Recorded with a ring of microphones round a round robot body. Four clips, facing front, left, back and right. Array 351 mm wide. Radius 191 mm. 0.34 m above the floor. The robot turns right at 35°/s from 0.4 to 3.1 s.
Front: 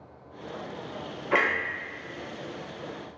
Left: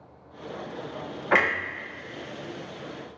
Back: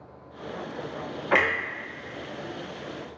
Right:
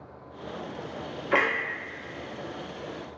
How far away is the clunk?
About 1.7 m.